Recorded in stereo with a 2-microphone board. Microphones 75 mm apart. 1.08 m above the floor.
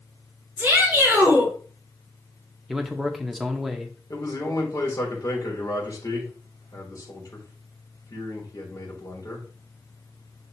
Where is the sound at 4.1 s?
50° left (ahead or behind), 3.5 m.